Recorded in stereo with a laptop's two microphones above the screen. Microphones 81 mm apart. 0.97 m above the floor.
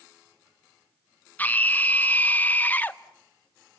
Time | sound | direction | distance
1.4 | a scream | 20° left (ahead or behind) | 0.5 m